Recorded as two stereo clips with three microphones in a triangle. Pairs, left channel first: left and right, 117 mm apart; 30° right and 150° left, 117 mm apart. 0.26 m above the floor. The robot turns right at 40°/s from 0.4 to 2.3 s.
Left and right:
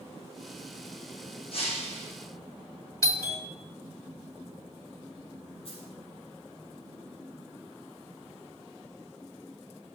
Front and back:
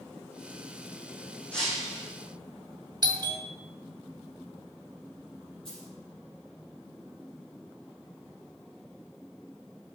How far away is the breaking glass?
About 6 m.